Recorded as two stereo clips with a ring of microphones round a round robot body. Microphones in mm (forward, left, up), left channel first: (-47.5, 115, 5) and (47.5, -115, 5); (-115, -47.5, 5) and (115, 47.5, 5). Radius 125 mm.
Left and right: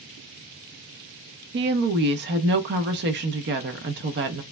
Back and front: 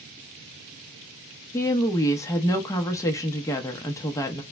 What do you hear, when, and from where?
1.5 s a woman speaking: 85° right, 0.6 m